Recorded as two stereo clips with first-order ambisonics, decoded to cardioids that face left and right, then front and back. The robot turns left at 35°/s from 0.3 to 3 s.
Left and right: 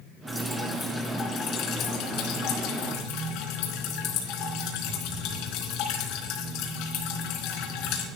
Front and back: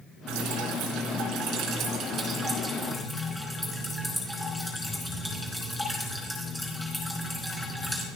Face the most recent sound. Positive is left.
turn(degrees=90)